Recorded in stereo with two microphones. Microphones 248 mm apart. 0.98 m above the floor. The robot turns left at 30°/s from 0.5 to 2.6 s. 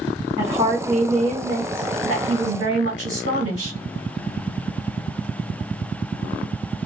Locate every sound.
0.4 s a woman speaking: 20° right, 1.6 m; by 3.8 s 85° right, 1.6 m